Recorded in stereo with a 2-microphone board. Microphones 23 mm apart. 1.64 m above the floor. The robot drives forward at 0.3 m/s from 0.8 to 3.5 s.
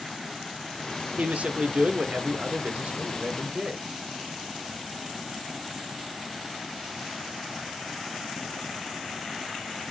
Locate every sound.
1.2 s a man speaking: 70° right (ahead or behind), 0.8 m; by 3.8 s 55° right (ahead or behind), 0.9 m